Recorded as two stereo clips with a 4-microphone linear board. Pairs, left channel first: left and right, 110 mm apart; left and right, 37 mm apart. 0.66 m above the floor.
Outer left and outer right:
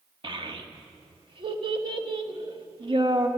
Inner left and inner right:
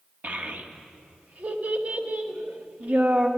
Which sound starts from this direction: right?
A child speaking, at 0.2 s.